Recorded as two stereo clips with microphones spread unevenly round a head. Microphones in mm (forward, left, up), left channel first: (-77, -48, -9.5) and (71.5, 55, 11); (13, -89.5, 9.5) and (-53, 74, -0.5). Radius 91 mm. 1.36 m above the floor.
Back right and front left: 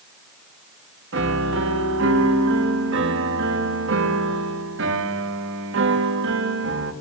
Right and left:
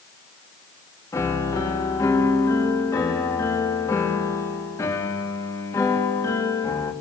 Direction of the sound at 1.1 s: 5° left.